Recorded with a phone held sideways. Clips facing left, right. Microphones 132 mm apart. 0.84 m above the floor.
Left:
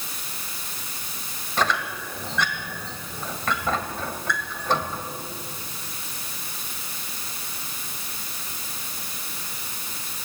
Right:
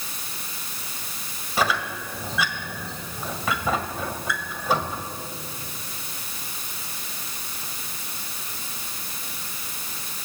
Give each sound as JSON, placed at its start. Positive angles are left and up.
{"t": 1.6, "sound": "a squeak", "side_deg": -5, "distance_m": 1.7}